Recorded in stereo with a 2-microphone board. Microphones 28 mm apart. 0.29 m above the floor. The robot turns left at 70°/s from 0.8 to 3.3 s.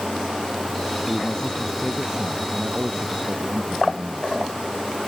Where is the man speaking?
50° left; by 4.6 s 105° right.